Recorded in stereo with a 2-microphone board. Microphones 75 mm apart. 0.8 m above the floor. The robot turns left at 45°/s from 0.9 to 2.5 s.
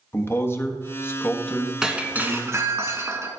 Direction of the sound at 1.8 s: 10° right.